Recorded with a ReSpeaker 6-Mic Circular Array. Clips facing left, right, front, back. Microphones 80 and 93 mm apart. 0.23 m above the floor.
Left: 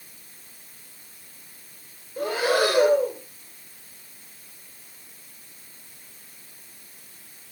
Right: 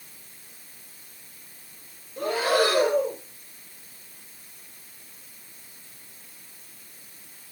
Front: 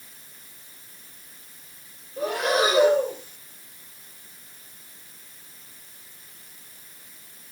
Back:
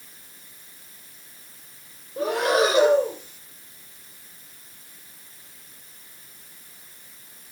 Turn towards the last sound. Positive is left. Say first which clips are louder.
# even, back 2 dB
turn(degrees=165)